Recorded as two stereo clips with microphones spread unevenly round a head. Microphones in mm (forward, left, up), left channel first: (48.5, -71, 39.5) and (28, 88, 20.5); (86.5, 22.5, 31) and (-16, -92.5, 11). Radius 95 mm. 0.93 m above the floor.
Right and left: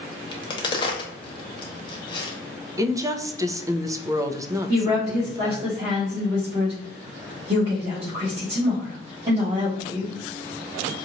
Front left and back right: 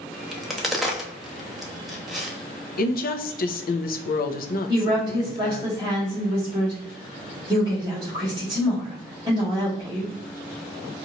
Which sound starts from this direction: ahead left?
A woman speaking, at 2.8 s.